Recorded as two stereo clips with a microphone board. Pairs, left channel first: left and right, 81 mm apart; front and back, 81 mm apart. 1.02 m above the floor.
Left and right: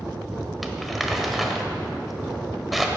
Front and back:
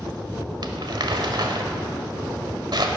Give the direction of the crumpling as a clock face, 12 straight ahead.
6 o'clock.